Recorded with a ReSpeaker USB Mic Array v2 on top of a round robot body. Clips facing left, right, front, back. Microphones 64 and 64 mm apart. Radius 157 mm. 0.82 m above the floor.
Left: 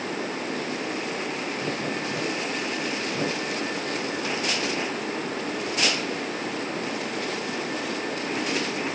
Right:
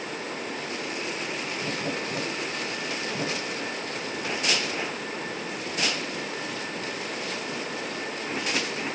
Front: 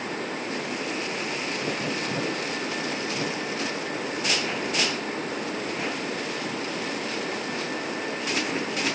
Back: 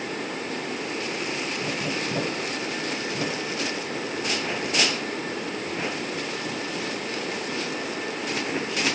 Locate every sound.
Only background noise.